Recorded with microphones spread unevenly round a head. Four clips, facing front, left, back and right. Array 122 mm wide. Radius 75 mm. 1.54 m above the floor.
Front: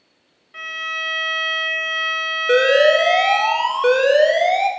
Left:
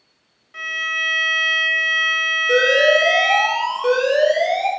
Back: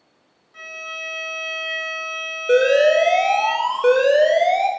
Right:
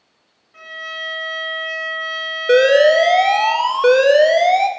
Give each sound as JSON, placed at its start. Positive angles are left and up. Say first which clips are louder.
{"t": 0.5, "sound": "a violin", "louder": "left 5 dB, front 6 dB", "azimuth_deg": 35, "distance_m": 1.6}
{"t": 2.5, "sound": "an alarm", "louder": "right 5 dB, even", "azimuth_deg": -110, "distance_m": 0.6}